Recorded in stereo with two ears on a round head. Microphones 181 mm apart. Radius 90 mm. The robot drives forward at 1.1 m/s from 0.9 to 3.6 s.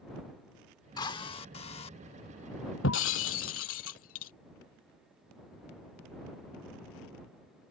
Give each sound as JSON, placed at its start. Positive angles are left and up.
{"t": 1.0, "sound": "a drill", "side_deg": 20}
{"t": 2.8, "sound": "breaking glass", "side_deg": 70}